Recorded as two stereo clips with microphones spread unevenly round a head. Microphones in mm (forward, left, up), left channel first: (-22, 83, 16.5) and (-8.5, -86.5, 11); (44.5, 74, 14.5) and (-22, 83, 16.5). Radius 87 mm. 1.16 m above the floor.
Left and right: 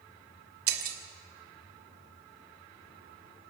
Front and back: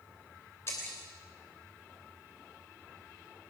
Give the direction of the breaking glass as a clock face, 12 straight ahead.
3 o'clock.